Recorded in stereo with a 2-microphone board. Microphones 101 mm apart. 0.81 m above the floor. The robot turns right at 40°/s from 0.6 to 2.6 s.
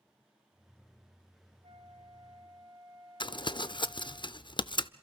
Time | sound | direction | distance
1.6 | a flute | 75° right | 2.5 m
3.2 | crumpling | 50° left (ahead or behind) | 0.6 m